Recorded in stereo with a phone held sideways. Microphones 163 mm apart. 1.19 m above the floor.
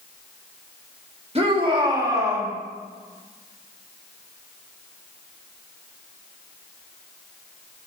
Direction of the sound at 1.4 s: 40° right (ahead or behind).